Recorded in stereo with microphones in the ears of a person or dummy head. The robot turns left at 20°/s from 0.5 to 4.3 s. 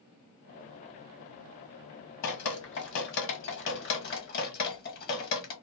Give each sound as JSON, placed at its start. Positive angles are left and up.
{"t": 2.2, "sound": "dripping", "side_deg": 80, "distance_m": 1.2}